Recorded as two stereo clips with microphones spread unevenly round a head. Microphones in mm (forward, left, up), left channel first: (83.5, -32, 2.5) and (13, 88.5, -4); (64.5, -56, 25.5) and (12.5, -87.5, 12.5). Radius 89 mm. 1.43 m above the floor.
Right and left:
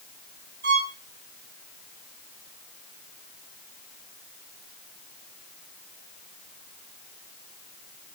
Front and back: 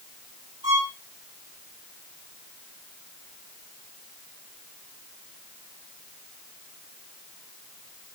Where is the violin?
160° left, 7.5 m.